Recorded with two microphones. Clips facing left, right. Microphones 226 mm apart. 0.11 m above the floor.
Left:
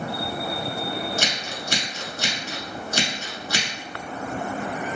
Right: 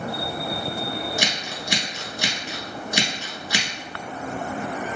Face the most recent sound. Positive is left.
turn(degrees=-15)  # may be behind; listen again after turning